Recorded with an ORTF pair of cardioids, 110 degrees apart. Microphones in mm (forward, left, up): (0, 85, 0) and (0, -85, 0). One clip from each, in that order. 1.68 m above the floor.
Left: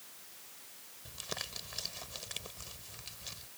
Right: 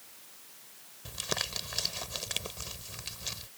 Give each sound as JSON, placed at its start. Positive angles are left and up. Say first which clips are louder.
{"t": 1.1, "sound": "crumpling", "louder": "right 8 dB", "azimuth_deg": -45}